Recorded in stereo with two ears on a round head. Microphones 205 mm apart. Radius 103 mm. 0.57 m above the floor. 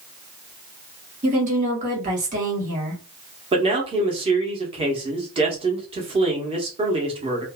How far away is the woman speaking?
About 1.3 m.